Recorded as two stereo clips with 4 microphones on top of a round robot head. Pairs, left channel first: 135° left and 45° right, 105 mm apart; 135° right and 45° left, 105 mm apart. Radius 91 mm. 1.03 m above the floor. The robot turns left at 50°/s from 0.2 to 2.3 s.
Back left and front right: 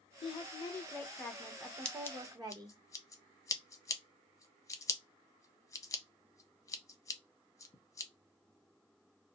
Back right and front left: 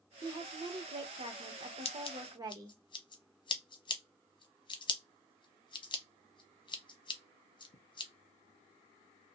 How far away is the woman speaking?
About 1.1 m.